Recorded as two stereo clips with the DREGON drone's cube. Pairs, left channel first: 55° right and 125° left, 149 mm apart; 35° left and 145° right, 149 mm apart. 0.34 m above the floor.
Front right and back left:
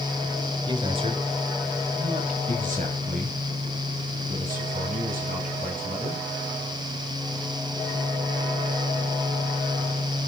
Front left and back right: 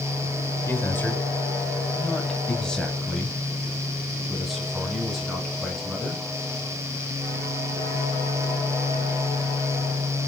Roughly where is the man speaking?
Left.